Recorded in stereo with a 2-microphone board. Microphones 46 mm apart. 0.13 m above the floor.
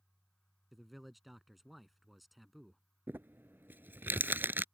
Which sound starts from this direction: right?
Crumpling, at 3.1 s.